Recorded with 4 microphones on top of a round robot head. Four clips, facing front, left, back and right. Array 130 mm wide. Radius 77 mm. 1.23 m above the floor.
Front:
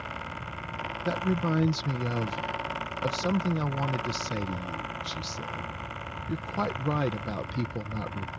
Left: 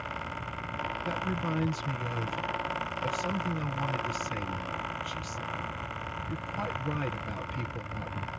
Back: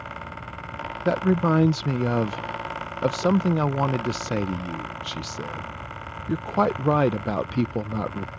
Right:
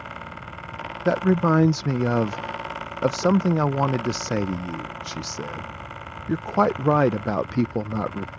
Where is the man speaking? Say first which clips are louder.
Right 16 dB, back 7 dB; 120° right.